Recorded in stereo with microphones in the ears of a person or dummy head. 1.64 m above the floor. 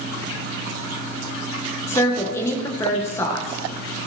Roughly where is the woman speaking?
Centre.